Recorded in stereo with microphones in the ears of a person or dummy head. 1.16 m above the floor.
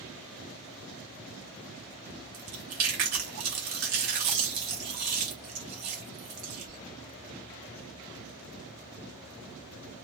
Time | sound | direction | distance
2.3 | chewing | 40° right (ahead or behind) | 0.8 m